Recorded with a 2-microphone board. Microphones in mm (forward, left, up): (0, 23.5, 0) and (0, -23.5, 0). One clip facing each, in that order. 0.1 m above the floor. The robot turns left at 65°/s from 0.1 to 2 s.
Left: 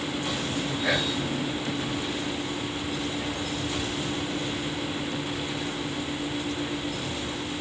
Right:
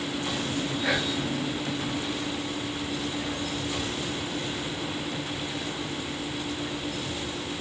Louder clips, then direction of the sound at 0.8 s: Left 1 dB; centre (ahead or behind).